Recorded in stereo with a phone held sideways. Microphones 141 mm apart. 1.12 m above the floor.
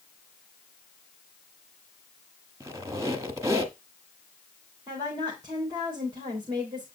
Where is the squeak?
20° right (ahead or behind), 1.1 m.